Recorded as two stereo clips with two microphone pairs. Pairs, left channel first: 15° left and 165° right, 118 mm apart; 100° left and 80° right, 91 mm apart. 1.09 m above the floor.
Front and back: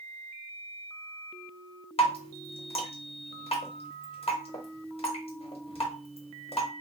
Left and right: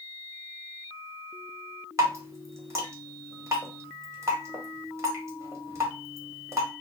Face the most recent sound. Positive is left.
turn(degrees=-20)